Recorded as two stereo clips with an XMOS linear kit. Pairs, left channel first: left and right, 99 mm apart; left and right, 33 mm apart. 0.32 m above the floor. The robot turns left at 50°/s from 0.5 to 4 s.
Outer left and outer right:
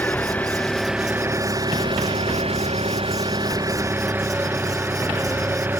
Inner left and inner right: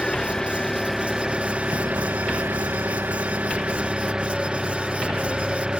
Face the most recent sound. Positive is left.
turn(degrees=-160)